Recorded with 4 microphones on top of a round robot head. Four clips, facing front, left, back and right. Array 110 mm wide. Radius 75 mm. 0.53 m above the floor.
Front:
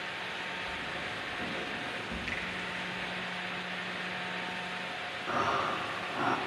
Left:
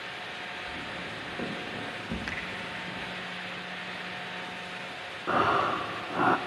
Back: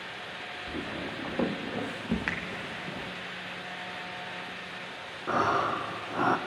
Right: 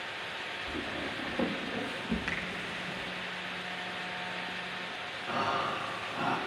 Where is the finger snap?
170° left, 2.5 m.